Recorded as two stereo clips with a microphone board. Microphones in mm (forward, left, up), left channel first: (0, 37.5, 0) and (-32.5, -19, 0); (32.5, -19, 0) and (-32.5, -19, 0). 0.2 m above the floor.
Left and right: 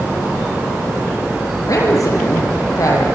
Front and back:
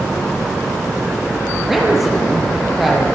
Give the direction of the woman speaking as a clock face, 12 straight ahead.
9 o'clock.